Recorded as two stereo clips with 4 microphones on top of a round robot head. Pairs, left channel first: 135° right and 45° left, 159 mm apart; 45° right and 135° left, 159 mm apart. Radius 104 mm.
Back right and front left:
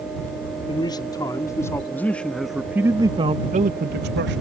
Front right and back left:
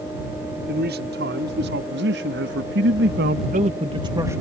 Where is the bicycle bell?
I don't hear a bicycle bell.